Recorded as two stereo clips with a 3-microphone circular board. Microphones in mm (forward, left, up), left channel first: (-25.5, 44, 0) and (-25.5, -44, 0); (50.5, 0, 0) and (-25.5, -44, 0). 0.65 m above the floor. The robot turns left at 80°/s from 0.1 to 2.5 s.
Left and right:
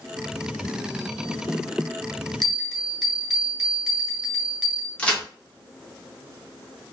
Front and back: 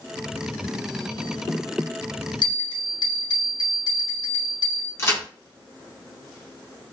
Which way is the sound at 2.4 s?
5° left.